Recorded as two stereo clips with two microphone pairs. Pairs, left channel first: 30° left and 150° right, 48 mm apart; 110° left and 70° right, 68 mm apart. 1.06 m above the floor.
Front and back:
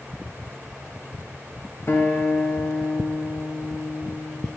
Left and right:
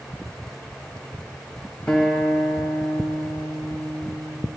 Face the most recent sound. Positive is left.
turn(degrees=40)